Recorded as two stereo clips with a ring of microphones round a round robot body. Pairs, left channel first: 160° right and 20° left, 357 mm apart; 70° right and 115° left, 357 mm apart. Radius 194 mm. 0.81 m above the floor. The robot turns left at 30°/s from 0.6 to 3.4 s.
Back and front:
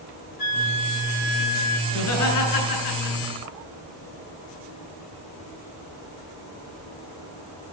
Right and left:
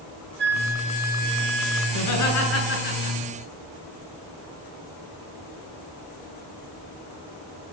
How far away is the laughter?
About 9 m.